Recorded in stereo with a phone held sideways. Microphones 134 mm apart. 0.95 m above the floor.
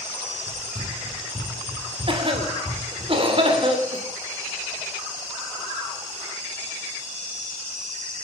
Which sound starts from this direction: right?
A cough, at 2.1 s.